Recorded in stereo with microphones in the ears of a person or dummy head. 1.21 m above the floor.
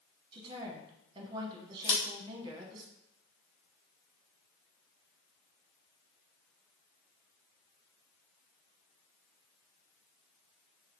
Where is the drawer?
I don't hear a drawer.